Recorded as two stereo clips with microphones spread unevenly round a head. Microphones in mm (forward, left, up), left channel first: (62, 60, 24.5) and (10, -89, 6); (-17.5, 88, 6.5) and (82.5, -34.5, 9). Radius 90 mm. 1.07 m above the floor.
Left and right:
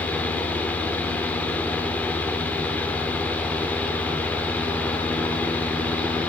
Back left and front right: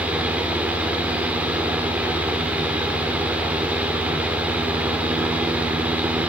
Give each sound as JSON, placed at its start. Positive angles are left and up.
{"t": 0.0, "sound": "a fan", "azimuth_deg": 20, "distance_m": 0.7}